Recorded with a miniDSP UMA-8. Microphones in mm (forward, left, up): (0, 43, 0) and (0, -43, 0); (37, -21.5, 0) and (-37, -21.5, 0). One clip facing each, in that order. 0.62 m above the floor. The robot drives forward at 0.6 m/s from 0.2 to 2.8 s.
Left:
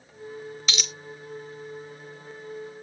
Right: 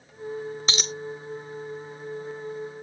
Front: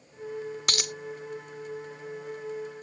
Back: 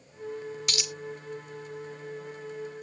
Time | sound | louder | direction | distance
0.7 | a dropped coin | right 3 dB, front 2 dB | 35° right | ?